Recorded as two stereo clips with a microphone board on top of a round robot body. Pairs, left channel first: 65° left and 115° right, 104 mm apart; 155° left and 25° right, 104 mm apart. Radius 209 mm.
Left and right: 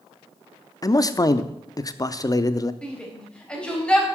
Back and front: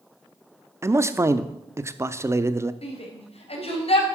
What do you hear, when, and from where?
0.8 s a man speaking: 30° left, 1.0 m
2.8 s a shout: 150° left, 4 m